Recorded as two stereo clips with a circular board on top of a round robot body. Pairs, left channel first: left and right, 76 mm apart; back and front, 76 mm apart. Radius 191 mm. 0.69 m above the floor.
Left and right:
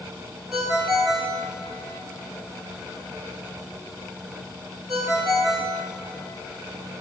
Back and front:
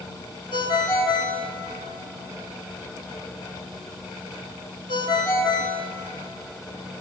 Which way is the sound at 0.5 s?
175° right.